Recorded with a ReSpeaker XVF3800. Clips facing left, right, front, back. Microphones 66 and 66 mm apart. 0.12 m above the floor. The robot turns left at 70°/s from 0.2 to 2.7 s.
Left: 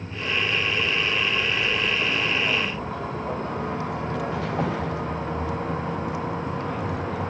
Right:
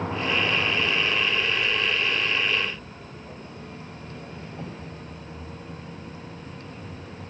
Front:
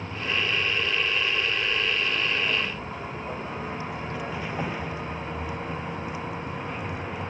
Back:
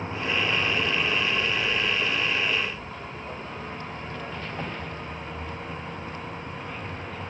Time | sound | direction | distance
0.0 | a vehicle | 110° right | ?